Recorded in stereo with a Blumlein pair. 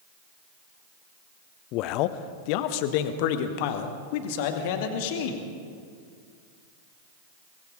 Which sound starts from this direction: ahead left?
A man speaking, at 1.7 s.